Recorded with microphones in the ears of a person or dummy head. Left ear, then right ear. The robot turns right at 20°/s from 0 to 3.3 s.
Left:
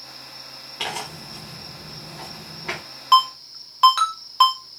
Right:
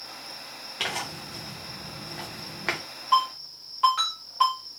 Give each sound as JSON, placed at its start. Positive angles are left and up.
{"t": 0.8, "sound": "tearing paper", "azimuth_deg": -175, "distance_m": 0.7}
{"t": 3.1, "sound": "a ringtone", "side_deg": 60, "distance_m": 0.9}